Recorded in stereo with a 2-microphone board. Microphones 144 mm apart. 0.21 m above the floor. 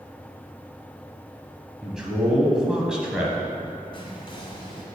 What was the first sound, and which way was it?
A man speaking, 5° right (ahead or behind).